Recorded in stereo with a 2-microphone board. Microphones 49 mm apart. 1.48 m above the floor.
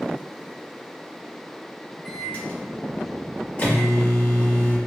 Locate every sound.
2.0 s a microwave: 40° left (ahead or behind), 1.4 m